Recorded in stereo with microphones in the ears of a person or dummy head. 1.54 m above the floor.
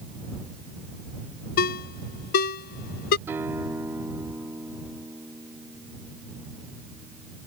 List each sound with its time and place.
1.6 s a ringtone: 45° left (ahead or behind)
3.3 s a guitar: 10° right (ahead or behind)